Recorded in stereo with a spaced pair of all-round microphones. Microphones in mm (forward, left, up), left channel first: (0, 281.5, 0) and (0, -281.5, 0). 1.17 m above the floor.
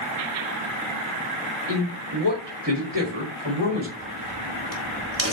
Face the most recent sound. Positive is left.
turn(degrees=-25)  # may be behind; listen again after turning